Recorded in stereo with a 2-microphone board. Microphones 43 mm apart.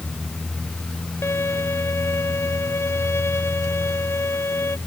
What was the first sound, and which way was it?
A violin, 85° left.